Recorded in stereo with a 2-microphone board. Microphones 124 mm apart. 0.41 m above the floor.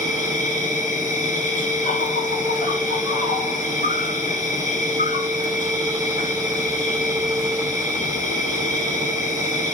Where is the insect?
80° left, 1.3 m.